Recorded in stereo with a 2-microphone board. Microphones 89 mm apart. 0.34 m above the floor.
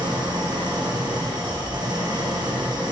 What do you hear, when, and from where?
0.0 s an engine running: 50° right (ahead or behind), 7 m